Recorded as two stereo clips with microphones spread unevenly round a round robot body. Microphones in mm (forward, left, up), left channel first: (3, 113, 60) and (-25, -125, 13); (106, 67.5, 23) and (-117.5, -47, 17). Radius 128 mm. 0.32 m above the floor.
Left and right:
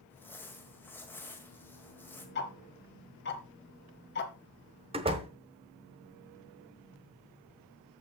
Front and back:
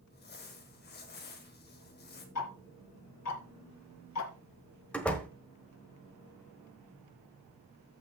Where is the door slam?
55° right, 1.1 m.